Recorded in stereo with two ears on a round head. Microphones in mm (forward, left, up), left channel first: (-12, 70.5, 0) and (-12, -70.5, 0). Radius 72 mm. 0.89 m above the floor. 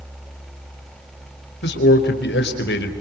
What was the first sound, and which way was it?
A man speaking, 75° left (ahead or behind).